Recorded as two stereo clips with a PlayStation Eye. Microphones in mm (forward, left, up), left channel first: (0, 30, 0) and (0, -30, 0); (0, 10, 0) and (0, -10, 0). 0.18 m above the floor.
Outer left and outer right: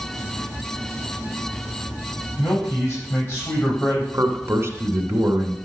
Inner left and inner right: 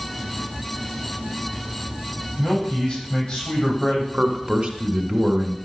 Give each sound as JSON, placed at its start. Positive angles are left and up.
{"t": 2.4, "sound": "a man speaking", "side_deg": 30, "distance_m": 8.0}
{"t": 4.1, "sound": "a man speaking", "side_deg": -45, "distance_m": 1.9}